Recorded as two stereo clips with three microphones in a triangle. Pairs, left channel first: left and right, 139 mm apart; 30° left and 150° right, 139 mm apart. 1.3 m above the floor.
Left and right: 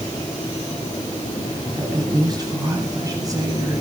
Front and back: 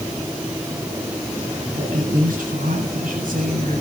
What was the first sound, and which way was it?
A woman speaking, 150° right.